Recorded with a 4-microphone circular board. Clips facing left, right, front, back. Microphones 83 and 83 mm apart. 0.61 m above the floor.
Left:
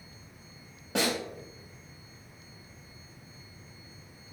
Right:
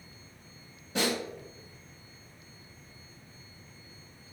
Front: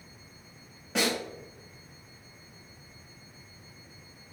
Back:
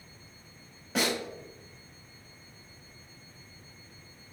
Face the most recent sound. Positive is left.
turn(degrees=95)